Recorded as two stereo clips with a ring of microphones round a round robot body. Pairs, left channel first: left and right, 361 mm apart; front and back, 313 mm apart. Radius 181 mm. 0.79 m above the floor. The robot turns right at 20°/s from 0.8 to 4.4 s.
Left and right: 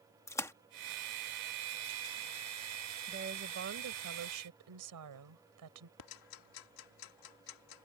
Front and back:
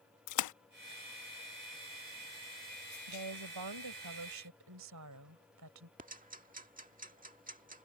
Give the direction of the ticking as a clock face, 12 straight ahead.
8 o'clock.